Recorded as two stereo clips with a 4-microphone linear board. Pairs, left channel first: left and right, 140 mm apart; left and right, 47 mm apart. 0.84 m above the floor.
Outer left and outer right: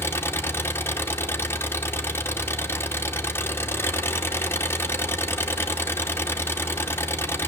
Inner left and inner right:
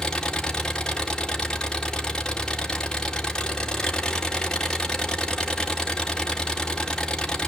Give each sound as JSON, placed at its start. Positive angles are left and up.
{"t": 0.0, "sound": "an engine running", "side_deg": 15, "distance_m": 0.9}